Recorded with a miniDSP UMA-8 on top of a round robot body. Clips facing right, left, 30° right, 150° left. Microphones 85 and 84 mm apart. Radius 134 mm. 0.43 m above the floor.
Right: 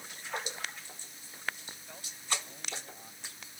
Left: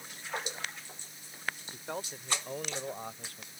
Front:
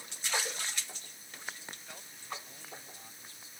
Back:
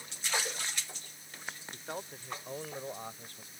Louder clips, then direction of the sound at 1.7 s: Left 12 dB, back 10 dB; 105° left.